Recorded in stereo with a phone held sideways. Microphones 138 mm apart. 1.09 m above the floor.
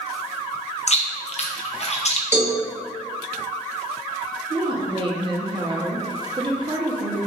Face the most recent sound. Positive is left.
turn(degrees=-35)  # may be behind; listen again after turning